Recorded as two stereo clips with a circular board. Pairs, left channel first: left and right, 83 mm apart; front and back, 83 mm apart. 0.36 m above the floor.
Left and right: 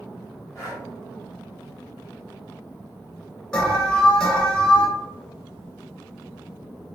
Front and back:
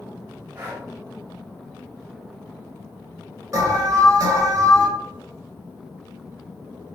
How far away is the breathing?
About 1.6 m.